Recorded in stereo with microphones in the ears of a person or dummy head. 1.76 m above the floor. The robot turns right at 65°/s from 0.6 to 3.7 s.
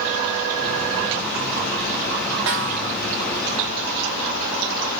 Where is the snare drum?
55° right (ahead or behind), 1.3 m; by 2.9 s 50° right (ahead or behind), 1.3 m.